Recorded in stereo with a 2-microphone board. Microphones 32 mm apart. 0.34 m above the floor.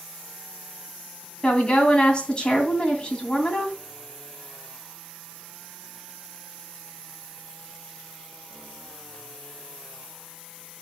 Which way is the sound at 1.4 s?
30° left (ahead or behind).